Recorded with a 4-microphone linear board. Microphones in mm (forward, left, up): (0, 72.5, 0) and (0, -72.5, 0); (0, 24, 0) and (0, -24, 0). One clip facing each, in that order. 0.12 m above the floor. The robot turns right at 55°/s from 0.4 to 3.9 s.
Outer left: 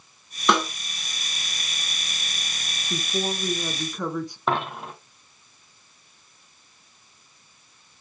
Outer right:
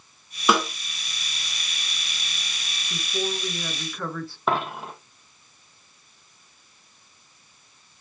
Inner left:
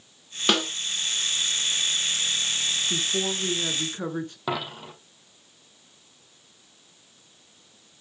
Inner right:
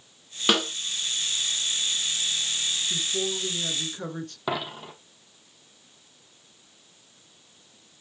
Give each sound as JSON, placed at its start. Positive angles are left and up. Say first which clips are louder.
{"t": 0.5, "sound": "a snare drum", "louder": "even, even", "side_deg": -5, "distance_m": 1.8}
{"t": 2.9, "sound": "a woman speaking", "louder": "outer left 1 dB, inner left 2 dB", "azimuth_deg": 95, "distance_m": 1.2}
{"t": 4.5, "sound": "a dropped coin", "louder": "outer right 2 dB, inner right 2 dB", "side_deg": 0, "distance_m": 2.0}